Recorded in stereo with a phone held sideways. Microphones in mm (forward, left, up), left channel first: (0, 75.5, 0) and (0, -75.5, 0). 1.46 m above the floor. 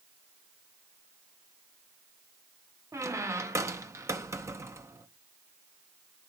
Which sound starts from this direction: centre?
A squeak, at 2.9 s.